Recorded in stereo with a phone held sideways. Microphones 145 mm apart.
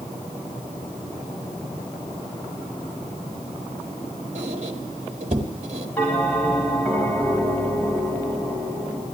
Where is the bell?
10° left (ahead or behind), 4.5 m.